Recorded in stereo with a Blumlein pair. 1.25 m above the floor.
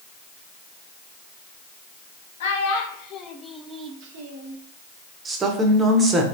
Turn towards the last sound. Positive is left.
turn(degrees=-15)